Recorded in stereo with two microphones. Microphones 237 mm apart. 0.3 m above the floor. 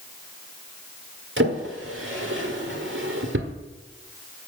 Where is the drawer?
60° right (ahead or behind), 1.6 m.